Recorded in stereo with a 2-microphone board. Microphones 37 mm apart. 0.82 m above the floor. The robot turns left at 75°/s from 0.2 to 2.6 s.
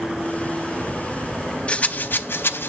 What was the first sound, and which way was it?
A rattle, 30° left (ahead or behind).